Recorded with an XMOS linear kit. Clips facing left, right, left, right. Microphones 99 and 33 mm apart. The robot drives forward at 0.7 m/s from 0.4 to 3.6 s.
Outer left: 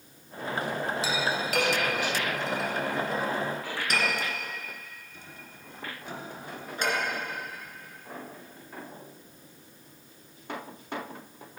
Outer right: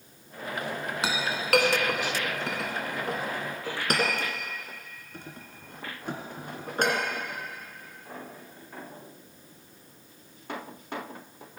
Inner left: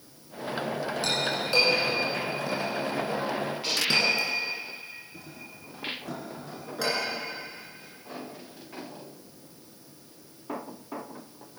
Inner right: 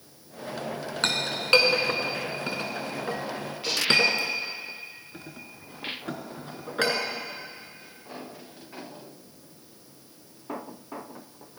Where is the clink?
65° right (ahead or behind), 2.5 m; by 7.0 s 55° right (ahead or behind), 2.5 m.